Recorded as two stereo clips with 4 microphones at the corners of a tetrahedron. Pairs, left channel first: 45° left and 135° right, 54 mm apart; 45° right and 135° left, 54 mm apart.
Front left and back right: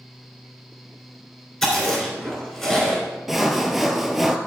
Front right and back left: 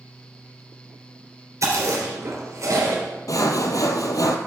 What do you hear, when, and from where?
1.6 s chewing: 130° left, 3 m
3.3 s sawing: 50° right, 0.8 m